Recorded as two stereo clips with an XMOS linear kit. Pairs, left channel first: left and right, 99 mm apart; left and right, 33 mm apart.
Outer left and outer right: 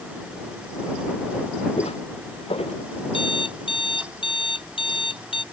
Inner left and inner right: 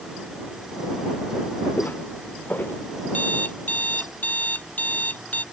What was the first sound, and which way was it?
Footsteps, 85° left.